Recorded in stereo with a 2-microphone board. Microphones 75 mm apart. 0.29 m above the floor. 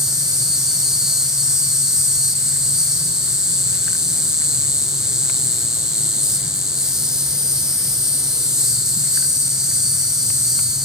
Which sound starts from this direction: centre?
An insect, at 0.0 s.